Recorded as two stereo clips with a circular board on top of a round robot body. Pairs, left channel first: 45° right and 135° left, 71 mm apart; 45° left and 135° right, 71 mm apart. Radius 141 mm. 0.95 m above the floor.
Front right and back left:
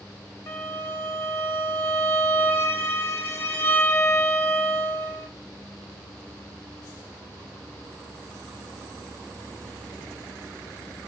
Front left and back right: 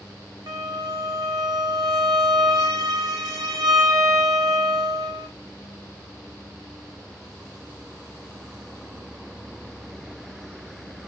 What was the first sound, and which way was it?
A violin, 105° right.